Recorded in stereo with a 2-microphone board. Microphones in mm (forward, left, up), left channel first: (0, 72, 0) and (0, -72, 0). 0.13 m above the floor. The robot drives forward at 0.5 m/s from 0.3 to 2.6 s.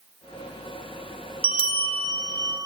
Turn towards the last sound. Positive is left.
turn(degrees=-30)  # may be behind; listen again after turning